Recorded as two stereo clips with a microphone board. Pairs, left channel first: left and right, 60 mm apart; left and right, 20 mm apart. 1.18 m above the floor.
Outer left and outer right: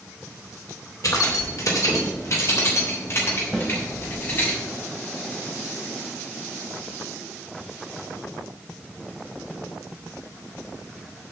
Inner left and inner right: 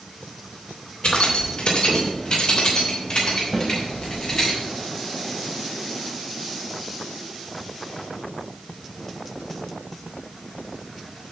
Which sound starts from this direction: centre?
A snare drum, at 3.5 s.